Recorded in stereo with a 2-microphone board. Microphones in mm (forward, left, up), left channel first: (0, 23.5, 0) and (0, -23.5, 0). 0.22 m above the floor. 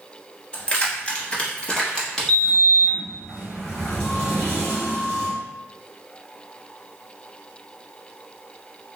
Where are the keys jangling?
25° left (ahead or behind), 0.8 m; by 2.6 s 10° left (ahead or behind), 1.1 m.